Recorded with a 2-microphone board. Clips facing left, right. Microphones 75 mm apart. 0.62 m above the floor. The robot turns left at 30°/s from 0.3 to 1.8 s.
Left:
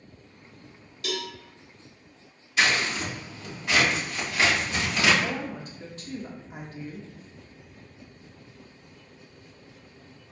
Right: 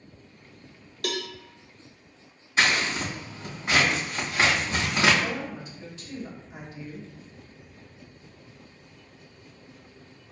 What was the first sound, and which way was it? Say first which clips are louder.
A cowbell: right 1 dB; 55° right (ahead or behind).